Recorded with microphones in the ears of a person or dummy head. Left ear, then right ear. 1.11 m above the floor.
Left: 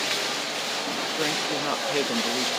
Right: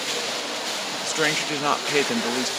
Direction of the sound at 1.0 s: 50° right (ahead or behind).